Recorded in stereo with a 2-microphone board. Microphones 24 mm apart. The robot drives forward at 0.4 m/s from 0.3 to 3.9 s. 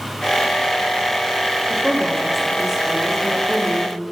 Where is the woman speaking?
15° right (ahead or behind), 7 m; by 3.9 s 10° right (ahead or behind), 8 m.